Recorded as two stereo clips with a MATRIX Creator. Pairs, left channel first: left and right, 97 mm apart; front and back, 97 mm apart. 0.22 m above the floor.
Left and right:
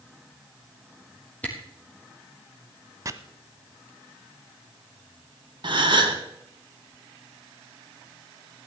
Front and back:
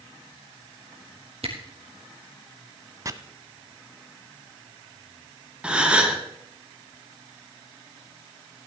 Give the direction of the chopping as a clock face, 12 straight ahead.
4 o'clock.